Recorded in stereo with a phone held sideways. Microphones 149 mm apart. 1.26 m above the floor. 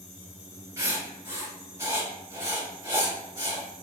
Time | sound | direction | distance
0.8 | writing | 20° right (ahead or behind) | 2.0 m